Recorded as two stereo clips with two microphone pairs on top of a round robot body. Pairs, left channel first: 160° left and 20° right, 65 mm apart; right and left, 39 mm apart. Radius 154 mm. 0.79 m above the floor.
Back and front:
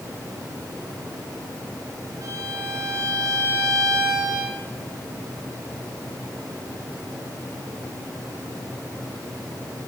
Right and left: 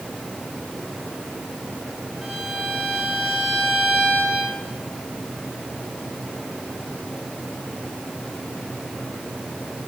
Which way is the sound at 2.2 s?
15° left.